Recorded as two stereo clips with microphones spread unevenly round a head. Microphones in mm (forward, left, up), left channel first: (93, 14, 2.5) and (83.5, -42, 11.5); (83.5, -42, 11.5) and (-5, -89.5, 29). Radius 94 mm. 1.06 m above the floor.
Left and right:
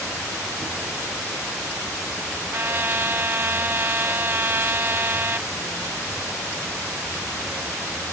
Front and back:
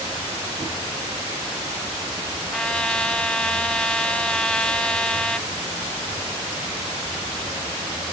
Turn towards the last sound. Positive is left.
turn(degrees=-50)